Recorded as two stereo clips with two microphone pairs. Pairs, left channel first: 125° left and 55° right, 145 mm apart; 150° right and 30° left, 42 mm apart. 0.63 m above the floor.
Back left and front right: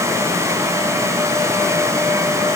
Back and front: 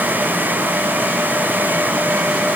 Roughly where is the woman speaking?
No woman speaking in this recording.